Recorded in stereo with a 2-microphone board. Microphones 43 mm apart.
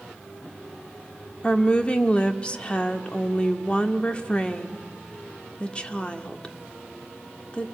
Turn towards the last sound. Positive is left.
turn(degrees=25)  # may be behind; listen again after turning